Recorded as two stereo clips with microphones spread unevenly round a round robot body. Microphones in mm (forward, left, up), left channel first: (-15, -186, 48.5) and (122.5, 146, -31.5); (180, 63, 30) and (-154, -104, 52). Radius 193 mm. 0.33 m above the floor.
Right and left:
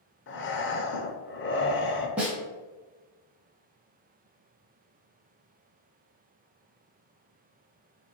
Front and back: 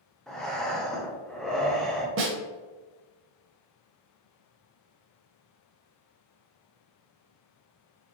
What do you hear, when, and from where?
0.3 s breathing: 55° right, 0.7 m
2.2 s a snare drum: 150° left, 0.7 m